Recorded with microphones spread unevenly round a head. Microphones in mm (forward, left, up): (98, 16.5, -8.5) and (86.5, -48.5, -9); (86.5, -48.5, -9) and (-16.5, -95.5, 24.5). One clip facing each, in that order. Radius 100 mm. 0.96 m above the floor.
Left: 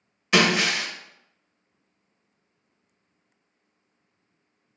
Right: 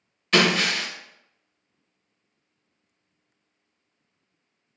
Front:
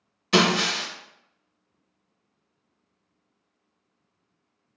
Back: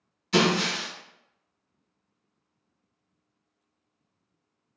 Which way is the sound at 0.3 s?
5° left.